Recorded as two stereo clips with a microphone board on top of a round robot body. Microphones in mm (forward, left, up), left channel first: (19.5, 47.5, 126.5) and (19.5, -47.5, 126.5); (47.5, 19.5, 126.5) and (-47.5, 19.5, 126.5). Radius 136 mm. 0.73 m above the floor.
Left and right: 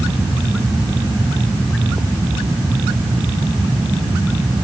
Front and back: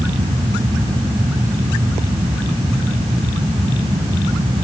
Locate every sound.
Only background noise.